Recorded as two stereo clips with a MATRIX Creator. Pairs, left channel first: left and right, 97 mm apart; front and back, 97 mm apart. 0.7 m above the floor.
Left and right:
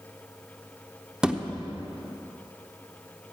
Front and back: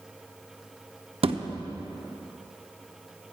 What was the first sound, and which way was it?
A thud, 170° right.